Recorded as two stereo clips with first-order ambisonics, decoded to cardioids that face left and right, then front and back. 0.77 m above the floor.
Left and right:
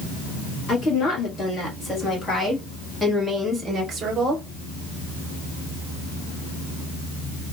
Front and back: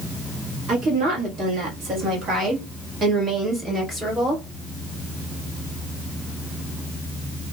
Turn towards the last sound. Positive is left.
turn(degrees=-90)